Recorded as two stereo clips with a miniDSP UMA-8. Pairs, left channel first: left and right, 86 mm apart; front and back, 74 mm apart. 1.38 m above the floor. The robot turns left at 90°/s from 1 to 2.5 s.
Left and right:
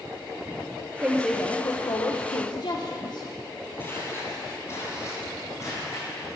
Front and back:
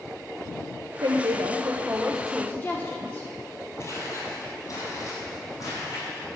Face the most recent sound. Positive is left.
turn(degrees=40)